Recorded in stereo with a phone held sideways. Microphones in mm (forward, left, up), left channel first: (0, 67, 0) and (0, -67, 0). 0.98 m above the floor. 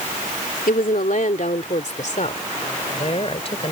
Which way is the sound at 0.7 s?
75° left (ahead or behind).